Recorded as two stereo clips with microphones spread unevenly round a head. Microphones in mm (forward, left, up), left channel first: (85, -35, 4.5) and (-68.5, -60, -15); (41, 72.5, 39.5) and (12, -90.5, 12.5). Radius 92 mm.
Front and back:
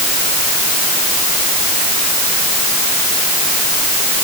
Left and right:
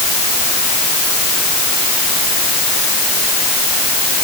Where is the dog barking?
No dog barking in this recording.